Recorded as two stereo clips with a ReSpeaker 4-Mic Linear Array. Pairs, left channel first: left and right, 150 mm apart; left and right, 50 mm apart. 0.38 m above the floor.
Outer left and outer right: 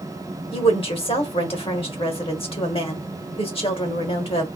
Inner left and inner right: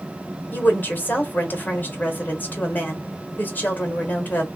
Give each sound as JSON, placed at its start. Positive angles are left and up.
{"t": 0.5, "sound": "a woman speaking", "side_deg": 40, "distance_m": 1.1}